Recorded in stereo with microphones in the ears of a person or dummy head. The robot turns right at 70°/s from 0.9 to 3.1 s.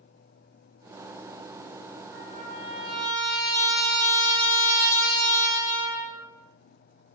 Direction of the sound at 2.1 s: 90° right.